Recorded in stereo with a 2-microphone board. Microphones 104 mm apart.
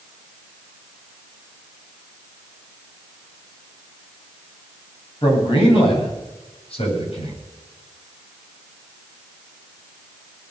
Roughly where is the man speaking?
Left.